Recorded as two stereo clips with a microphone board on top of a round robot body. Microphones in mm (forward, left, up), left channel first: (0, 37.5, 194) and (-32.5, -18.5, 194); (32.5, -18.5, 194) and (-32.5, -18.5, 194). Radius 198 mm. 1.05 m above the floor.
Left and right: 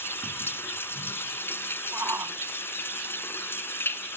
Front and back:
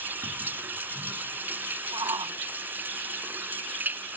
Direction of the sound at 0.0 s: 115° left.